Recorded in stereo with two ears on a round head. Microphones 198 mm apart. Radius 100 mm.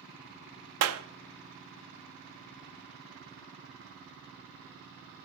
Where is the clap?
75° right (ahead or behind), 0.7 m.